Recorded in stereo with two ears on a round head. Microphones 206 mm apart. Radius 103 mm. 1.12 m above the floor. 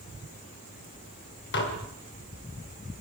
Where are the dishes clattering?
55° left (ahead or behind), 3.5 m.